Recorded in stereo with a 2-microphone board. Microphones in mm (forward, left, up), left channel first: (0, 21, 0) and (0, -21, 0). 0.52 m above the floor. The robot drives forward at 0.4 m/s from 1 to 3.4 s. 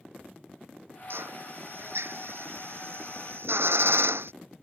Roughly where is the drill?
Right.